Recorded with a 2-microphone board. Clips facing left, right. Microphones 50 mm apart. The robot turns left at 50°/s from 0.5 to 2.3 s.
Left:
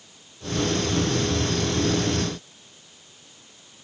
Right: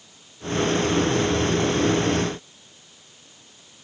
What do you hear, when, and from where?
Only background noise.